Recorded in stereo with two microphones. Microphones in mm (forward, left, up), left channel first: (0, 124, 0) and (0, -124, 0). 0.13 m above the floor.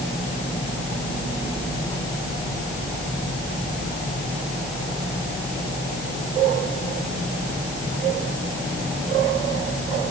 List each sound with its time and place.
Only background noise.